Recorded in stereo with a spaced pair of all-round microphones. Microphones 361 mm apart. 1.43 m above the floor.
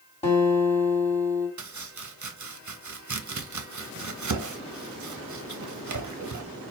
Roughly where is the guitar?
Centre.